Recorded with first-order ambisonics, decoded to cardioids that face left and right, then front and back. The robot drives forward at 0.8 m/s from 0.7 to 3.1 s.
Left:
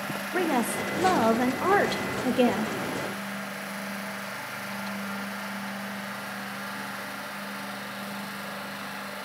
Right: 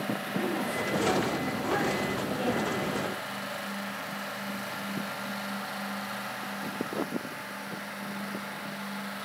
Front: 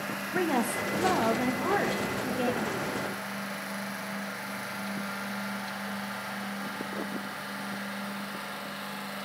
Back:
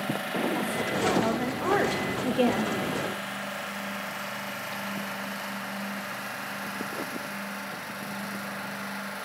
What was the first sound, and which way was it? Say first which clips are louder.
A woman speaking: left 6 dB, front 2 dB; 60° left.